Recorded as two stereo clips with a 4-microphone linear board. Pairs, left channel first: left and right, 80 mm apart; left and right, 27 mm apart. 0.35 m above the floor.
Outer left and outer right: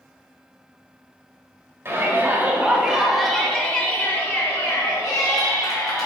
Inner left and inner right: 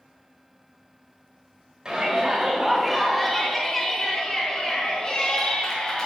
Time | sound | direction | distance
1.9 | a shout | 30° right (ahead or behind) | 1.7 m